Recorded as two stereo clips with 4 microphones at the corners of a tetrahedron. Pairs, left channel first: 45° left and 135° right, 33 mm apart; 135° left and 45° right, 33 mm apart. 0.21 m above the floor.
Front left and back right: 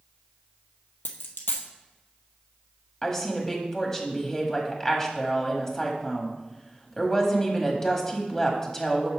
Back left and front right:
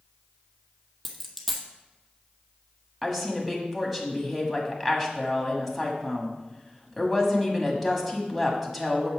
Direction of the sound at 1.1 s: 45° left.